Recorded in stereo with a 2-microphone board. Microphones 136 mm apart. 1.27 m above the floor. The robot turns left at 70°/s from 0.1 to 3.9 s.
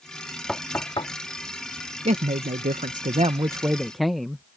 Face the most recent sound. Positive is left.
turn(degrees=180)